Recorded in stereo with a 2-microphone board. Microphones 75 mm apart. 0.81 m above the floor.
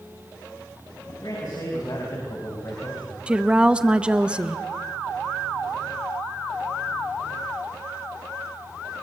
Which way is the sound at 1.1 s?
65° left (ahead or behind).